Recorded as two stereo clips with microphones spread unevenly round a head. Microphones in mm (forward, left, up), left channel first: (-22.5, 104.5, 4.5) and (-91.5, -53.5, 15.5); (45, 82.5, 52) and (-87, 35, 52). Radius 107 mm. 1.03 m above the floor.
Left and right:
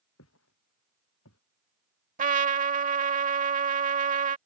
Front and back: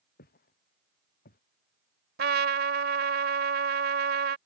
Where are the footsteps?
35° left.